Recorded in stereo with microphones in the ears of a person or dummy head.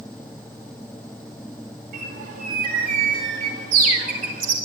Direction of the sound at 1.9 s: 50° right (ahead or behind).